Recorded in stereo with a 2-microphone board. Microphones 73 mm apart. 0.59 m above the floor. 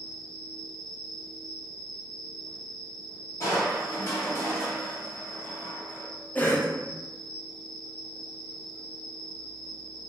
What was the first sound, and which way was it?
An insect, 15° left (ahead or behind).